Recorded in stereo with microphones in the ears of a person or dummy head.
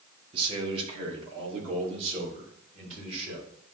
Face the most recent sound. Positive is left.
turn(degrees=-40)  # may be behind; listen again after turning